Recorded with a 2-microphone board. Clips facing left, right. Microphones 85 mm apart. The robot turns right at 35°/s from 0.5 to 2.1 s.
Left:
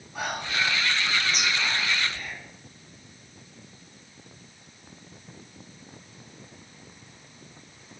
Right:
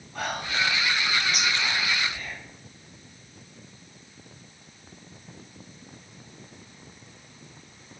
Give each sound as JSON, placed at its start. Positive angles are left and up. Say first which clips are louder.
{"t": 0.1, "sound": "whispering", "louder": "even", "side_deg": 10, "distance_m": 1.3}